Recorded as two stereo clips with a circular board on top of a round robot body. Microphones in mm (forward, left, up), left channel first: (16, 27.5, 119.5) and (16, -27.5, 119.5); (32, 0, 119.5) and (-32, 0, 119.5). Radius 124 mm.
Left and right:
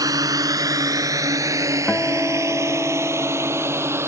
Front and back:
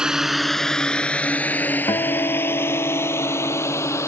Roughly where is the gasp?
No gasp in this recording.